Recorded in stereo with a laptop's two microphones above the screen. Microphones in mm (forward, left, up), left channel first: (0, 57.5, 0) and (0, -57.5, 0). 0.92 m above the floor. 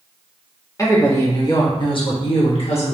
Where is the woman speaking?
30° left (ahead or behind), 1.8 m; by 2.9 s 65° left (ahead or behind), 1.2 m.